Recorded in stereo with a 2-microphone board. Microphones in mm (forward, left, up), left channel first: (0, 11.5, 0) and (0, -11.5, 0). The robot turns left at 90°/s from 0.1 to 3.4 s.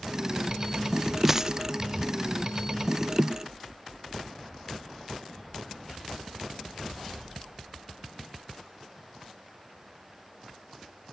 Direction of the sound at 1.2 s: 10° right.